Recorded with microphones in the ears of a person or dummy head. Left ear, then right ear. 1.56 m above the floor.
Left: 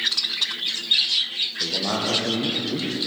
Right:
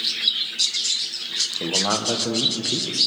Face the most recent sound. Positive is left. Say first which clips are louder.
# right 2 dB
turn(degrees=-70)  # may be behind; listen again after turning